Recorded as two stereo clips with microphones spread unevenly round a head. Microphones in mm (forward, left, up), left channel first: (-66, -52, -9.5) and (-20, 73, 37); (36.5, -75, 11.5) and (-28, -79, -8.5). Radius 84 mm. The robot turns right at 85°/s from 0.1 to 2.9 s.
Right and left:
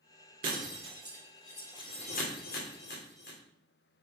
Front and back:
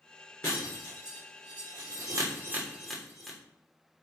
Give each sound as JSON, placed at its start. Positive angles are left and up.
{"t": 0.4, "sound": "breaking glass", "azimuth_deg": 70, "distance_m": 3.0}